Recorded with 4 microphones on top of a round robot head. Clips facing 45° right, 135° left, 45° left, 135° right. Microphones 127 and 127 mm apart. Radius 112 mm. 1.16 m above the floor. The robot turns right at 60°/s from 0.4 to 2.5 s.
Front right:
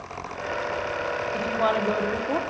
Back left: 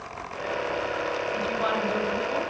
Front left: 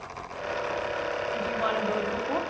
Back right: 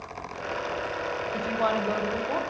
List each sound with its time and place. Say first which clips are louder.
1.3 s a woman speaking: front right 5 dB, back right 4 dB; 105° right, 0.9 m; by 2.4 s 40° right, 0.9 m